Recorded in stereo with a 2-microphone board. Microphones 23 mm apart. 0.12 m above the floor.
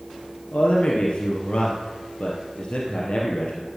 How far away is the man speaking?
About 2.5 m.